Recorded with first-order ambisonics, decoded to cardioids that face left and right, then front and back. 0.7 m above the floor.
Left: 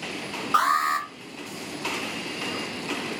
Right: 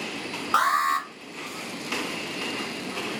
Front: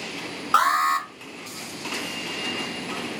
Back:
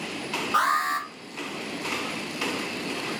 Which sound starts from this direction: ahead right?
An alarm, at 0.5 s.